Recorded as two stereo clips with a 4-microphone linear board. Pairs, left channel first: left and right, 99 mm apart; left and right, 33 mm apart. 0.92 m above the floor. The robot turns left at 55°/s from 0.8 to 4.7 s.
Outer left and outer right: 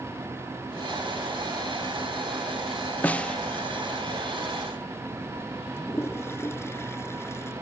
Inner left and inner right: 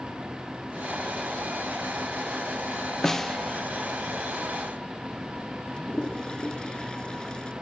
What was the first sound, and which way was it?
A snare drum, 15° left (ahead or behind).